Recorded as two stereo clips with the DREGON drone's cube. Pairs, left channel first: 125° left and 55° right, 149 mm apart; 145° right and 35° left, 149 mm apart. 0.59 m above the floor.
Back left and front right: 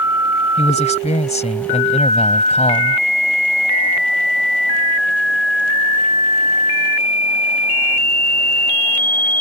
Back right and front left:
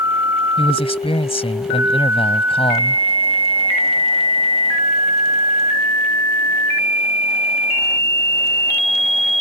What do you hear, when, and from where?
0.6 s a man speaking: 165° left